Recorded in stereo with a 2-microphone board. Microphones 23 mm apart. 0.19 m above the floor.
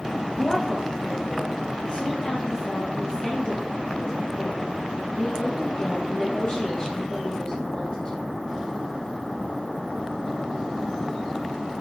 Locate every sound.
0.4 s a woman speaking: 30° left (ahead or behind), 6.5 m